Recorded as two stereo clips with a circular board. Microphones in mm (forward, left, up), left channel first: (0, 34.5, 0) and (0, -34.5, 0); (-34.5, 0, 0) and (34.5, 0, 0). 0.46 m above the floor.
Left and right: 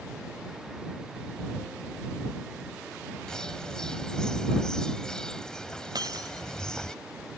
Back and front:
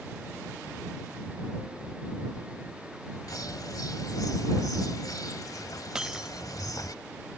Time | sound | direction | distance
3.3 | a bird | 170° left | ?
6.0 | breaking glass | 80° right | ?